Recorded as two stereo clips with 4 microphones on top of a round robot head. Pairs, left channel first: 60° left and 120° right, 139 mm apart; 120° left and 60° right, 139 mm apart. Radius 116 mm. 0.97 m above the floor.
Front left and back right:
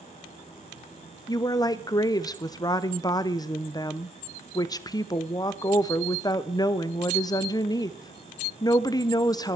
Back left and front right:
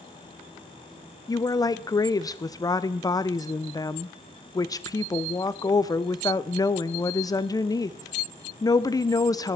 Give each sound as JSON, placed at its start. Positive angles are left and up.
{"t": 1.3, "sound": "a woman speaking", "azimuth_deg": 90, "distance_m": 0.5}